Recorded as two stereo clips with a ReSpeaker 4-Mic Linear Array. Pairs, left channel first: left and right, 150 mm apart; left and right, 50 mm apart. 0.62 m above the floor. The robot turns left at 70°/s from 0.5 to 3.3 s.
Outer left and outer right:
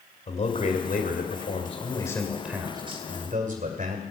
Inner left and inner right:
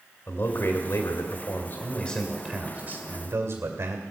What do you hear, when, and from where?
0.3 s a man speaking: 130° left, 2 m; by 4.0 s 65° right, 2 m